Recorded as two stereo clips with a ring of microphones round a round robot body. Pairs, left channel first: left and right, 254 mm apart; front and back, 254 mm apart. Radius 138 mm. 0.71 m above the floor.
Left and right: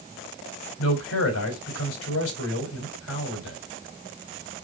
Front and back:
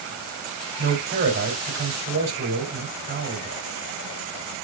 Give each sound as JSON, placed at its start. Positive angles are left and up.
{"t": 0.8, "sound": "a man speaking", "azimuth_deg": 120, "distance_m": 3.0}